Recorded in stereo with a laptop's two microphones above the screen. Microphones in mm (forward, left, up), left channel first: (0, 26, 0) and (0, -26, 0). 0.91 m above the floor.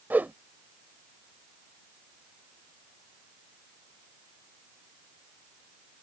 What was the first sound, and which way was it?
A whoosh, 35° right (ahead or behind).